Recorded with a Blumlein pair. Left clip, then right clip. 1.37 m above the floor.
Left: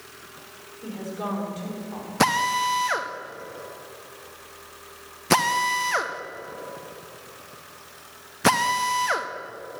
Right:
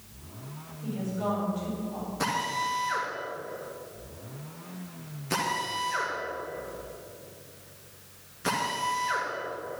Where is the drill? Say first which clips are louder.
Left 8 dB; 55° left, 1.0 m.